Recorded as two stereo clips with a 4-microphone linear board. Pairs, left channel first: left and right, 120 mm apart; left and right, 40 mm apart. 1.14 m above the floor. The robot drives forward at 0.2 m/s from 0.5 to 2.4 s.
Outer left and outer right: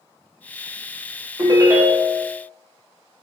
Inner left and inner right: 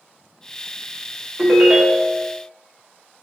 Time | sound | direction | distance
1.4 | a ringtone | 30° right (ahead or behind) | 0.6 m